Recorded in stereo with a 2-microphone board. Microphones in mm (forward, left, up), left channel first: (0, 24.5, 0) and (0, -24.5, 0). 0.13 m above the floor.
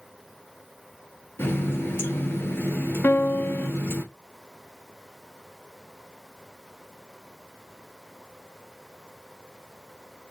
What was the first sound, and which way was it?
A running tap, 50° left (ahead or behind).